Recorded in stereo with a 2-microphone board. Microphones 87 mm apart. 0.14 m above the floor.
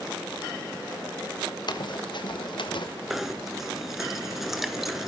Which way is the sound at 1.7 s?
55° left (ahead or behind).